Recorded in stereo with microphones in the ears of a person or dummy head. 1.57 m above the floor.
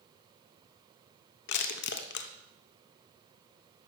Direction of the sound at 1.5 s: 60° left (ahead or behind).